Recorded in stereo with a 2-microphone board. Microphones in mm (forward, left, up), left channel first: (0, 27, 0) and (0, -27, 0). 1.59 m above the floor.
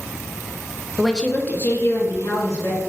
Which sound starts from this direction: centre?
A woman speaking, at 1.0 s.